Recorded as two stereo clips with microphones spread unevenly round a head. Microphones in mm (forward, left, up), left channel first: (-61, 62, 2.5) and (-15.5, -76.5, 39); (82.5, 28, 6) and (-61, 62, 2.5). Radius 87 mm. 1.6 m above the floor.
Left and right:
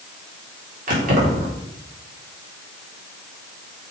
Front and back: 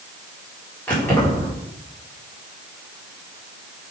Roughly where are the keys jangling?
Right.